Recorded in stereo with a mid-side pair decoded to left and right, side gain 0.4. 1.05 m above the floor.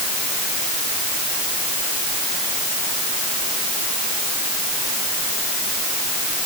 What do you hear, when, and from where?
Only background noise.